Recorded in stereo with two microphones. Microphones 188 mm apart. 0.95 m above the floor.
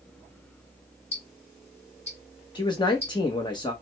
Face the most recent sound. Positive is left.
turn(degrees=25)  # may be behind; listen again after turning